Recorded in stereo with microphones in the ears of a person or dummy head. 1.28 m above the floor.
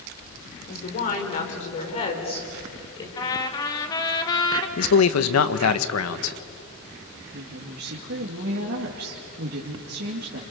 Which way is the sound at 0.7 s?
45° left (ahead or behind).